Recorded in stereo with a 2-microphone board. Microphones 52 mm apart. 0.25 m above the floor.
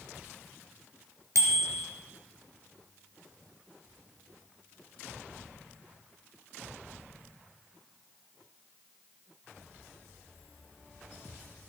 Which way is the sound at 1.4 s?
70° right (ahead or behind).